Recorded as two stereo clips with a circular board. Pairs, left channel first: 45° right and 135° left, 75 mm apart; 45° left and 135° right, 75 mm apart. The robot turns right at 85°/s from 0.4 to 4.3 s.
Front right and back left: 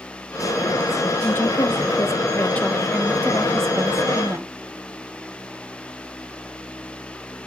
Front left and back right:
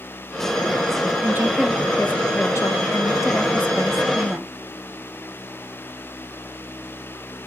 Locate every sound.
1.2 s a woman speaking: 100° right, 0.7 m; by 4.5 s 165° left, 0.7 m